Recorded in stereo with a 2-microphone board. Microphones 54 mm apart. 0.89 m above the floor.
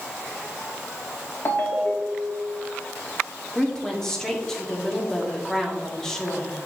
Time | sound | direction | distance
1.4 | a ringtone | 45° left (ahead or behind) | 1.3 m
3.5 | a woman speaking | 10° left (ahead or behind) | 1.4 m